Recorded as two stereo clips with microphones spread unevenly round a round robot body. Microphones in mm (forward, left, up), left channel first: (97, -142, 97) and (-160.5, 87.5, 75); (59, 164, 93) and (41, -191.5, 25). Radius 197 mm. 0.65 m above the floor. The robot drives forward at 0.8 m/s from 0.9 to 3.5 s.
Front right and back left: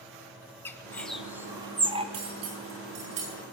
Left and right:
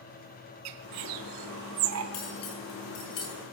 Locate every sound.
0.7 s a bird: 125° right, 1.3 m; by 2.0 s 145° right, 2.0 m
2.1 s cutlery clinking: 85° left, 6 m; by 3.4 s 95° left, 6 m